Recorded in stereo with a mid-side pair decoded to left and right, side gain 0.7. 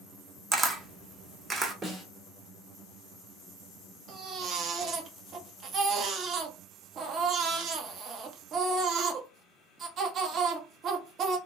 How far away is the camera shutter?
About 0.6 m.